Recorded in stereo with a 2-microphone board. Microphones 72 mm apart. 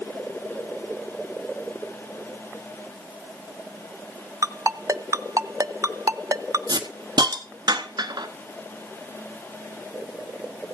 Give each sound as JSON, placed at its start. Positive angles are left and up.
{"t": 4.4, "sound": "a ringtone", "side_deg": -50, "distance_m": 0.6}
{"t": 6.7, "sound": "a hiss", "side_deg": -80, "distance_m": 1.2}